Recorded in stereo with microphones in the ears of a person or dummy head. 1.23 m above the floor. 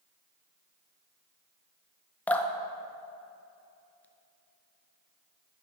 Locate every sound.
2.3 s dripping: 5° left (ahead or behind), 0.6 m